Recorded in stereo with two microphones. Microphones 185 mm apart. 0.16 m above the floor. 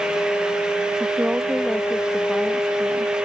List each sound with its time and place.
1.0 s a woman speaking: 5° right (ahead or behind); by 3.1 s 5° left (ahead or behind)